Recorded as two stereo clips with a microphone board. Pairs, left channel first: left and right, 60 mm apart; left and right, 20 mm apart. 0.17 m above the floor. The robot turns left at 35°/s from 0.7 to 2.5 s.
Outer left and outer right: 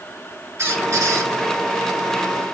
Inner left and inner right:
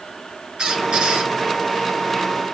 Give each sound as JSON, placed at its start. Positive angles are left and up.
{"t": 0.6, "sound": "a squeak", "side_deg": -50, "distance_m": 2.0}